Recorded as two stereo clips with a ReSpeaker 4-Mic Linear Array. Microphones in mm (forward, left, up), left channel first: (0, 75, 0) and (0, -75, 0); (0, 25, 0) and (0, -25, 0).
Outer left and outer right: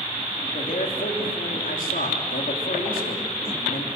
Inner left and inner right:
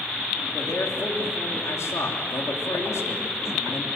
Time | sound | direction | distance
0.5 | a man speaking | 85° left | 3 m